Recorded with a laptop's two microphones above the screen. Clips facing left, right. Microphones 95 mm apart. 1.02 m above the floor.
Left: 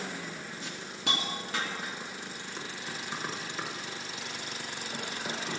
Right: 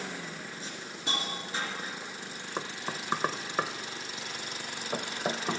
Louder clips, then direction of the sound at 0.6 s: Left 4 dB; 70° left (ahead or behind).